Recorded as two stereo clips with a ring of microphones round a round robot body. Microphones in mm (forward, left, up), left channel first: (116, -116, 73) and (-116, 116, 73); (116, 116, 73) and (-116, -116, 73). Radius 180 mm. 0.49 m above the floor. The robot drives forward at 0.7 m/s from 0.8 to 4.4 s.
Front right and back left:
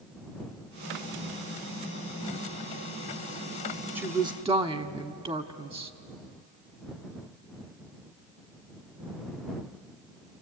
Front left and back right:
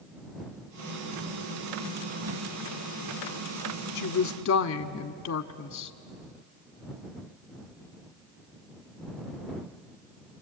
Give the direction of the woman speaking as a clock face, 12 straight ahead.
11 o'clock.